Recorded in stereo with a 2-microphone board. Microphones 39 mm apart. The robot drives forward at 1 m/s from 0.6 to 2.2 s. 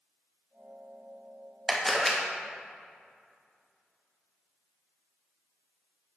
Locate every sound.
1.7 s a camera shutter: 5° left (ahead or behind), 1.1 m; by 2.2 s centre (ahead or behind), 1.5 m